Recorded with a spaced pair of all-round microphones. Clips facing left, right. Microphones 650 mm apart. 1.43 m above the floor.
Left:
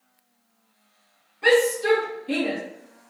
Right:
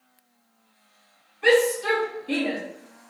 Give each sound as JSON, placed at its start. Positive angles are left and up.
{"t": 1.4, "sound": "a shout", "side_deg": 65, "distance_m": 2.0}